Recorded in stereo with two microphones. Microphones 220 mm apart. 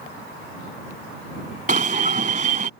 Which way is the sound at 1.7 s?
35° right (ahead or behind).